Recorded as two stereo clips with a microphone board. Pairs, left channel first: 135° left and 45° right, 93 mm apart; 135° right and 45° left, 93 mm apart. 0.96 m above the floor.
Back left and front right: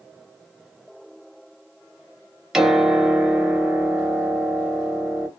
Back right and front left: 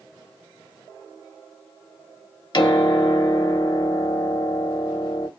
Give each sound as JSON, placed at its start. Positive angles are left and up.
{"t": 2.5, "sound": "a piano", "azimuth_deg": -130, "distance_m": 0.6}